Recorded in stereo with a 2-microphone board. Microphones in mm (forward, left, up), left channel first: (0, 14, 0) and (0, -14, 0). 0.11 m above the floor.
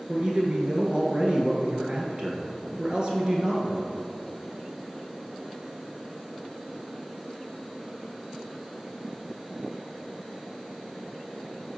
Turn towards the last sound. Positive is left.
turn(degrees=-35)  # may be behind; listen again after turning